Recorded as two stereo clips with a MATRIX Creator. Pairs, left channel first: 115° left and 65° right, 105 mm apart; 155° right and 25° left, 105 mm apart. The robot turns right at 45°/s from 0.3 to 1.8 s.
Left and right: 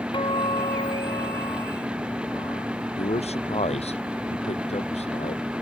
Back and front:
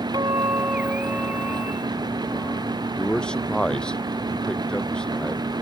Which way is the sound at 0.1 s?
70° left.